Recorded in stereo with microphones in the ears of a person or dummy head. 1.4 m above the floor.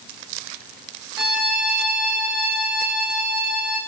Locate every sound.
1.2 s a violin: 20° right (ahead or behind), 4 m